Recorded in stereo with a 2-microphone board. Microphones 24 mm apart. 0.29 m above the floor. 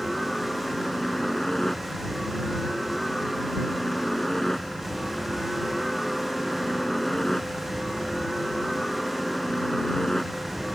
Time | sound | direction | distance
0.0 | a helicopter | 20° left (ahead or behind) | ?